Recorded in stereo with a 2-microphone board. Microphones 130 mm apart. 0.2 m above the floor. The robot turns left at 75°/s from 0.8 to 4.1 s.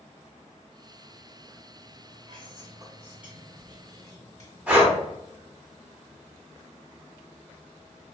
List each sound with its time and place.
2.3 s whispering: 90° right, 1.3 m; by 4.5 s 130° left, 1.3 m
4.7 s breathing: 10° right (ahead or behind), 1.3 m